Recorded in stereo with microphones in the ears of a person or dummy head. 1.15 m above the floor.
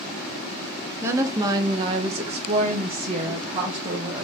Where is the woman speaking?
15° right (ahead or behind), 0.8 m; by 4.2 s 25° right (ahead or behind), 1.4 m.